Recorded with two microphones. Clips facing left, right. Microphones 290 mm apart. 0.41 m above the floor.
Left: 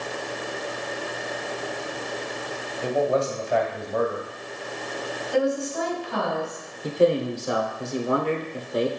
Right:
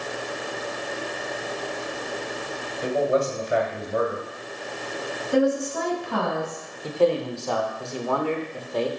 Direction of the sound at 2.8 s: 20° right (ahead or behind).